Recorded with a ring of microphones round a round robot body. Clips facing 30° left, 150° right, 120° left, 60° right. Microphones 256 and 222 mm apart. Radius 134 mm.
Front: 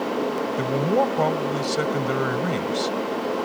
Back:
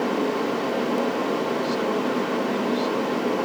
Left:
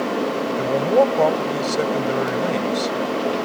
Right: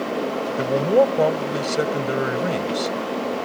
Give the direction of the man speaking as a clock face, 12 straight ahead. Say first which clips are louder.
Front 2 dB, even; 11 o'clock.